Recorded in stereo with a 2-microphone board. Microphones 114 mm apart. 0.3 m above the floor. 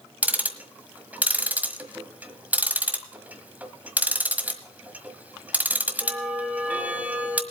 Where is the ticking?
15° right (ahead or behind), 1.4 m.